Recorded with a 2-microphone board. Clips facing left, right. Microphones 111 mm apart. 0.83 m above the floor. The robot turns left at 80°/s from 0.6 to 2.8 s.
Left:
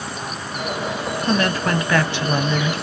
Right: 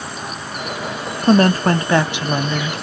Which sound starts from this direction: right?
A woman speaking, at 1.2 s.